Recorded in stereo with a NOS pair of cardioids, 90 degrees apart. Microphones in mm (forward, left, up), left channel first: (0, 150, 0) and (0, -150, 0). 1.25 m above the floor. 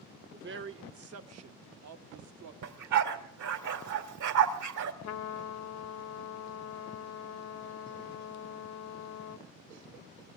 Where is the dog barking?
65° right, 3 m.